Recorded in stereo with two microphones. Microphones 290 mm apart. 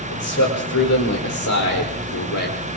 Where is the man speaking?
70° left (ahead or behind), 5 m; by 2.7 s 85° left, 4 m.